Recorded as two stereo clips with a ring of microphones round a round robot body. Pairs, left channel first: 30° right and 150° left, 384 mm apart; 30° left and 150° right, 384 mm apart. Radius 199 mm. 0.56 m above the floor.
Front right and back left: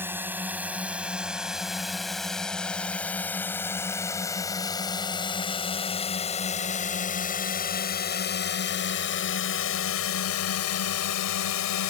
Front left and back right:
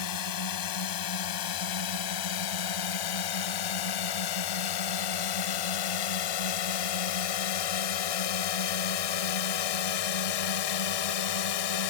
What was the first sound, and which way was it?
A drone, 65° left.